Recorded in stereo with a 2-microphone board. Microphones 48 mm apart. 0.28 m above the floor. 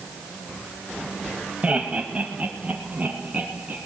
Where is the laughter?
25° right (ahead or behind), 1.1 m; by 3.8 s 30° right (ahead or behind), 2.5 m.